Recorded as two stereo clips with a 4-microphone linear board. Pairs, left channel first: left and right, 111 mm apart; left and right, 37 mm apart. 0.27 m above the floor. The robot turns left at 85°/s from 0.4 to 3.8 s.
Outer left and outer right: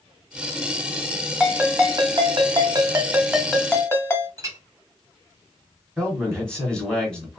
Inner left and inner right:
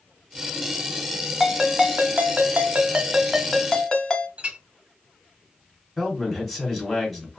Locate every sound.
1.4 s a ringtone: 5° right, 0.9 m; by 4.3 s 150° left, 0.9 m
4.4 s a clink: 30° right (ahead or behind), 1.2 m
6.0 s a man speaking: 10° left (ahead or behind), 2 m